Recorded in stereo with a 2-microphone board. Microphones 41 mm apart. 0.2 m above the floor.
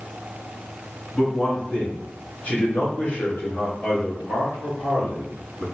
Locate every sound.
1.1 s a man speaking: 25° left (ahead or behind), 2.0 m; by 5.7 s 70° left (ahead or behind), 3.5 m